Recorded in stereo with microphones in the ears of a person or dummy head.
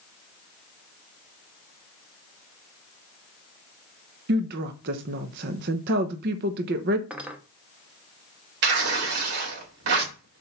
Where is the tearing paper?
60° right (ahead or behind), 2.5 m.